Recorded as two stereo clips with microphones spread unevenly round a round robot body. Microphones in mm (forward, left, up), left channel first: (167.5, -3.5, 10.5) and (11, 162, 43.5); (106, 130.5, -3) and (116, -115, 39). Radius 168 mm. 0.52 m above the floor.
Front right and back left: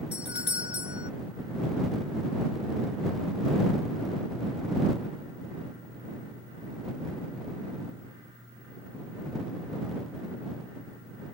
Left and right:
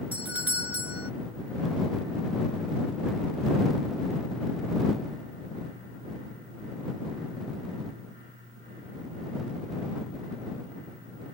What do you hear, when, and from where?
0.1 s a doorbell: 5° right